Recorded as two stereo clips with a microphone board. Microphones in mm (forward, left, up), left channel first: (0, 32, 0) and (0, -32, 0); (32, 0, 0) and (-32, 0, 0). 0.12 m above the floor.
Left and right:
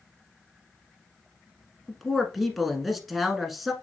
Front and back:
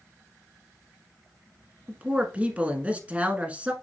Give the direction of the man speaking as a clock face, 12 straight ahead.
6 o'clock.